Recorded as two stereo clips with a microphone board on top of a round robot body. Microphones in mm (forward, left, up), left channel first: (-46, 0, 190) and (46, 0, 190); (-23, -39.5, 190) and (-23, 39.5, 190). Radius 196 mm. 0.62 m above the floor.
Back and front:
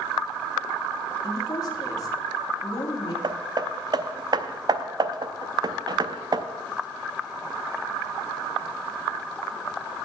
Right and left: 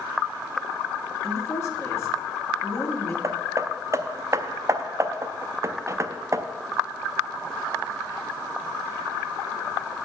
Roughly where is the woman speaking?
Behind right.